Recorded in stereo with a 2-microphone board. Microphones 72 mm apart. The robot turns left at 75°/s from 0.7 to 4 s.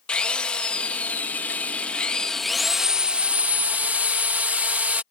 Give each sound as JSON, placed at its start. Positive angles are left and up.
{"t": 0.1, "sound": "a drill", "side_deg": 15}